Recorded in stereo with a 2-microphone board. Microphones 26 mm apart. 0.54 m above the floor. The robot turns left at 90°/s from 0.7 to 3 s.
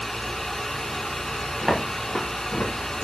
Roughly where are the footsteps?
Centre.